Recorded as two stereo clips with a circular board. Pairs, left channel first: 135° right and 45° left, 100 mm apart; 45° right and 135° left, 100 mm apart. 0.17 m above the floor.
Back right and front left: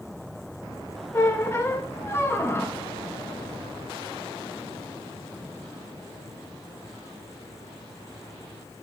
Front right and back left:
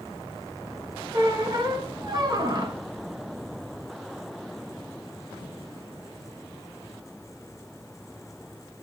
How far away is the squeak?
About 1.3 m.